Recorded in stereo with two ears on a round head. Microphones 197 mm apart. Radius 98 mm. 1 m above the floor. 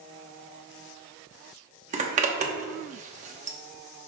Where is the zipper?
35° right (ahead or behind), 0.9 m.